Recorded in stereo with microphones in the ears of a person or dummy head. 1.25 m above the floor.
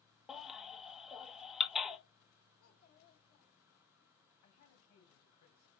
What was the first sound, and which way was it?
A baby crying, centre (ahead or behind).